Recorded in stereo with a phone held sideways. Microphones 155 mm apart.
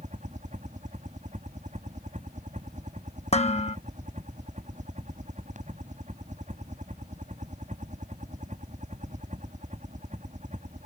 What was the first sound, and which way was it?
A helicopter, 45° right (ahead or behind).